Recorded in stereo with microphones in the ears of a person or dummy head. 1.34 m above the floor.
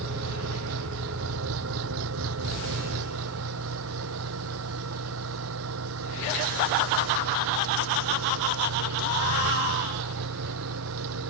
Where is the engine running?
80° right.